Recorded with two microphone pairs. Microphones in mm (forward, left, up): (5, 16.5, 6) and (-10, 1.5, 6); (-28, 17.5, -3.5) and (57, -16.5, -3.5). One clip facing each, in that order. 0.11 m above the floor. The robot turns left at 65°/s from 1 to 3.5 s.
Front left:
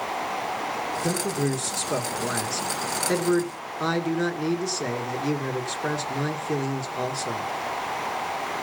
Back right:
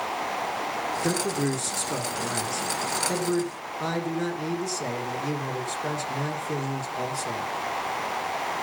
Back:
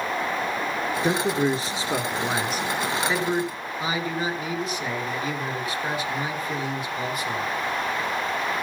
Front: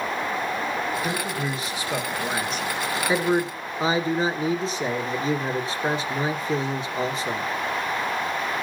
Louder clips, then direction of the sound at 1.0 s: Even, back 5 dB; 170° left.